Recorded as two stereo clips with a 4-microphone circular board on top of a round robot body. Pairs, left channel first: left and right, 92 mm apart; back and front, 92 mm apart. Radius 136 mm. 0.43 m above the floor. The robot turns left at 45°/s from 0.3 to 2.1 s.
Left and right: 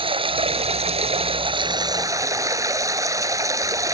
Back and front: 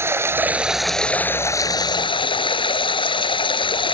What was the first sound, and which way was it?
Running water, 65° right.